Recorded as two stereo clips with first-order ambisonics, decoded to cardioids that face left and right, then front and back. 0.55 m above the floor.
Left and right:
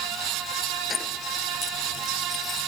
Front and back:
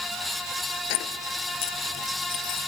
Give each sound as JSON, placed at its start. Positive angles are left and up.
{"t": 0.9, "sound": "keys jangling", "azimuth_deg": 15}